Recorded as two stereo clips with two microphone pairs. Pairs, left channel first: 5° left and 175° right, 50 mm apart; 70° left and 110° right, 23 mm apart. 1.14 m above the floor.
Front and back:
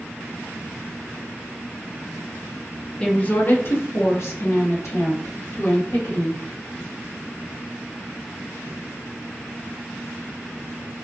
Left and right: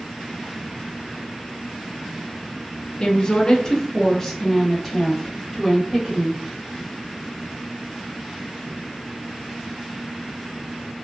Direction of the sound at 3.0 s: 60° left.